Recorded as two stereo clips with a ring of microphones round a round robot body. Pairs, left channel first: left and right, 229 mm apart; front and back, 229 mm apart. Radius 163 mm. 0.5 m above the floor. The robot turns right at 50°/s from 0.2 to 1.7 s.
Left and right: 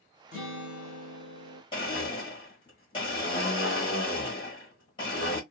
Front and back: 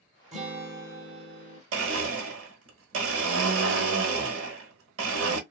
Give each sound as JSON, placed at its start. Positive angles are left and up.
{"t": 0.3, "sound": "a guitar", "azimuth_deg": 120, "distance_m": 1.5}
{"t": 1.7, "sound": "a blender", "azimuth_deg": 165, "distance_m": 1.2}